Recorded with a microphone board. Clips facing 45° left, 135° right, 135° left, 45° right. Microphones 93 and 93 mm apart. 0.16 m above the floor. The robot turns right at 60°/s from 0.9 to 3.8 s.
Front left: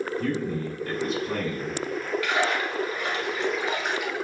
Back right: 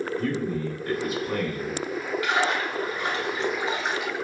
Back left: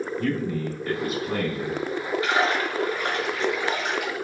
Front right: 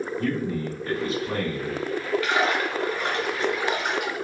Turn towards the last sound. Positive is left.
turn(degrees=-100)